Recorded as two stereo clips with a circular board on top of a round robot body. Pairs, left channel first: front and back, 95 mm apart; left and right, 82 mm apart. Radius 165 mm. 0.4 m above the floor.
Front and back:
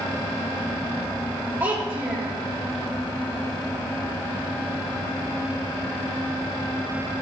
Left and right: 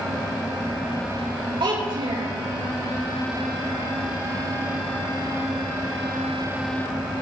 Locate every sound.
1.6 s a child speaking: 110° right, 8 m